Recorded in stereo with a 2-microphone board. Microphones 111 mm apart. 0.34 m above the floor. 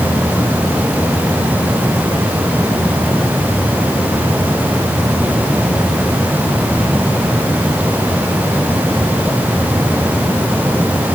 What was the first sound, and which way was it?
Only background noise.